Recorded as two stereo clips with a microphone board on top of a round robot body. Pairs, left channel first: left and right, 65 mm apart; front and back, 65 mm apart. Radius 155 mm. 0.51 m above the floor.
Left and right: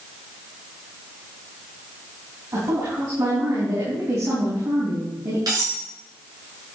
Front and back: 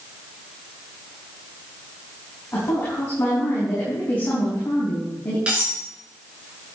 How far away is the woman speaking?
About 5 m.